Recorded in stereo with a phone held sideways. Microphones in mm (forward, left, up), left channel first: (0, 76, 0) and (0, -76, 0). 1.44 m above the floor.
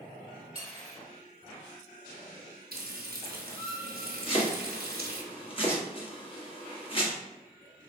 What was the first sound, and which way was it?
Cutlery clinking, 40° right (ahead or behind).